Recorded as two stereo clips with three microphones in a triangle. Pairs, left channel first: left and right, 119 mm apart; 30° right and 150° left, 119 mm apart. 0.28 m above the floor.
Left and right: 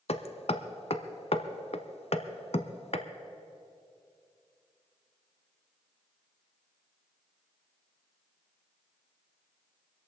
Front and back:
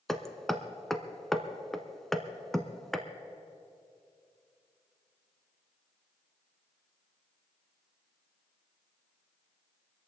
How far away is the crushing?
I don't hear crushing.